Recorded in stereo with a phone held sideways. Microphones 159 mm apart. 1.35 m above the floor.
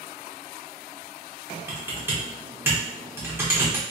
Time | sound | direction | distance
1.7 | typing on a keyboard | 15° right (ahead or behind) | 0.9 m